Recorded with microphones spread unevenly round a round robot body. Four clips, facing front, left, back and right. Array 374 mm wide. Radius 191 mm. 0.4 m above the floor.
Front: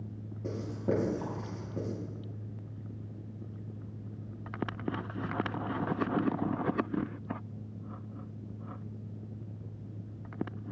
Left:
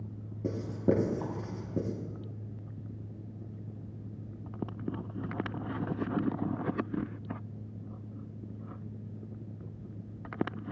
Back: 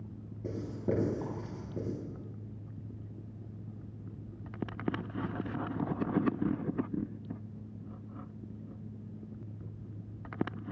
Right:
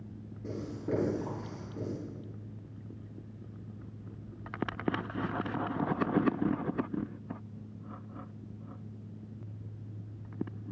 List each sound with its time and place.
0.4 s writing: 75° left, 5 m